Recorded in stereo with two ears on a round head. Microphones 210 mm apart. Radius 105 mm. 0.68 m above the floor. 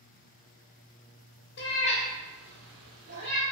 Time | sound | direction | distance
1.6 | a cat meowing | 50° left (ahead or behind) | 0.5 m